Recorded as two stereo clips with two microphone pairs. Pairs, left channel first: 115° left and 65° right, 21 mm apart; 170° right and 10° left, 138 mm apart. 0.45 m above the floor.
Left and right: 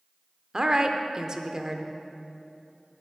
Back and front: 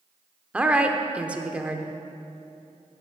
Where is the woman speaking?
60° right, 0.8 m.